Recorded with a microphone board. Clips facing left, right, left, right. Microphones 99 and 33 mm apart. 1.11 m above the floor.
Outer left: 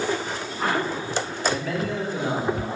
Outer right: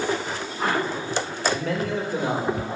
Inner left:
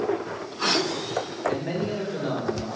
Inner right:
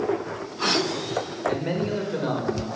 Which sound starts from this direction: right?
A man speaking, at 1.5 s.